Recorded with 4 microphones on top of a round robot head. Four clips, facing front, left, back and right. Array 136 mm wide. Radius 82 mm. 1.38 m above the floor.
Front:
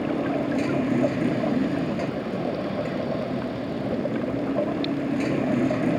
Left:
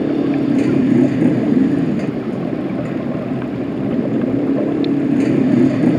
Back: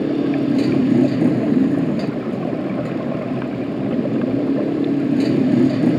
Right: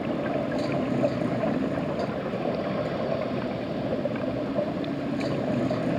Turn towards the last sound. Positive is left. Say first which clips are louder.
# left 11 dB, back 7 dB
turn(degrees=115)